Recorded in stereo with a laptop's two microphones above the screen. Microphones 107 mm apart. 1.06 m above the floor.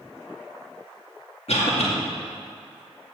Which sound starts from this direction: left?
A cough, at 1.5 s.